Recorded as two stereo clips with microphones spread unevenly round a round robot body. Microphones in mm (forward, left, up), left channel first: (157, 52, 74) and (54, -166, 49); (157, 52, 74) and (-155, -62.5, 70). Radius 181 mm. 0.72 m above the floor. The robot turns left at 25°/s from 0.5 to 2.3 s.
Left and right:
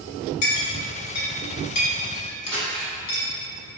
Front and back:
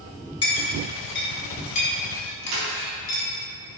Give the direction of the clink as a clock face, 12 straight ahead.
9 o'clock.